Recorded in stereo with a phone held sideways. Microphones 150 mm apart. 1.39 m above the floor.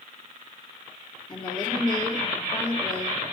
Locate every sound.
1.3 s a woman speaking: 30° left (ahead or behind), 3.5 m